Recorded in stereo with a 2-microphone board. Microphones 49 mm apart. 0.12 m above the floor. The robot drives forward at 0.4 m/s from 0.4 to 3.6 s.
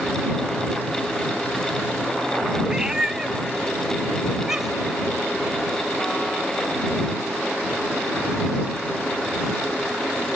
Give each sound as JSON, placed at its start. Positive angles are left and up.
{"t": 2.6, "sound": "a cat meowing", "side_deg": -15, "distance_m": 0.6}